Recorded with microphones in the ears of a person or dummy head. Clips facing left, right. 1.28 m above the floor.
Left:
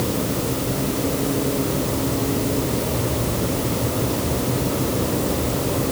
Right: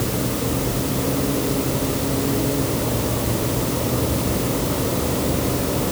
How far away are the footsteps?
No footsteps in this recording.